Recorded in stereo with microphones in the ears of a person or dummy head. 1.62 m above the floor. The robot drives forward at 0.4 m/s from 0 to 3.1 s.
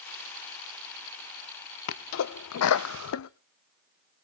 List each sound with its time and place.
1.9 s a sneeze: 65° left (ahead or behind), 0.7 m; by 3.3 s 70° left (ahead or behind), 0.7 m